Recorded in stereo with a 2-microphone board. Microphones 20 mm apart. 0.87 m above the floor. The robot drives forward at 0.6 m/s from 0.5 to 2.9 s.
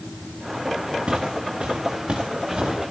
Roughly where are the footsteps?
Right.